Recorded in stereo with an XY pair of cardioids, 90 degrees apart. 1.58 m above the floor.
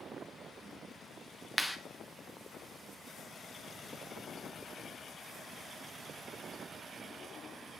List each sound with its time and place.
1.6 s a clap: 5° left, 1.3 m